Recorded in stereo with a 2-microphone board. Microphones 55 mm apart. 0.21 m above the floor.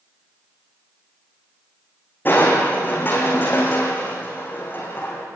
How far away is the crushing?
About 5 m.